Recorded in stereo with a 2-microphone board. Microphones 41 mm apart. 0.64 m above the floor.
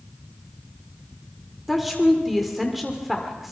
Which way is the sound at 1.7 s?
Centre (ahead or behind).